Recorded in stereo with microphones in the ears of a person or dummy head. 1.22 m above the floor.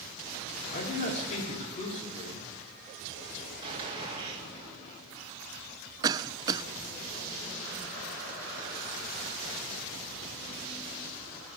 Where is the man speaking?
40° left (ahead or behind), 3.5 m.